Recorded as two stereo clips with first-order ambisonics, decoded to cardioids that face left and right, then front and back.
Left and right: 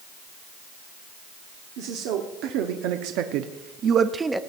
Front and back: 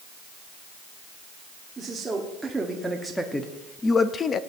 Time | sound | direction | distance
1.8 | a man speaking | 100° right | 1.4 m